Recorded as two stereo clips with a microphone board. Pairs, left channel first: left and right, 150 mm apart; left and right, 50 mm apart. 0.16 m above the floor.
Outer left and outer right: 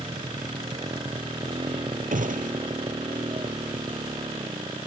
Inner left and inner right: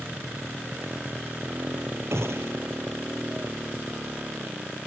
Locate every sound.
0.0 s a motorcycle: 30° right (ahead or behind)
2.1 s a gunshot: 65° right (ahead or behind)